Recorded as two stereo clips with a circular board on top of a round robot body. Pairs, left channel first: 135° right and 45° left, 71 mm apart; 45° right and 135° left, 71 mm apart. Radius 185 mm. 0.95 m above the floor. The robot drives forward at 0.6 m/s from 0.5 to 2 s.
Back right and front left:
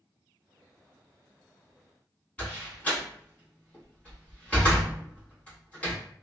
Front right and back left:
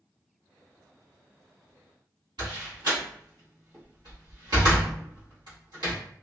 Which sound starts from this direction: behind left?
A door slam, at 2.4 s.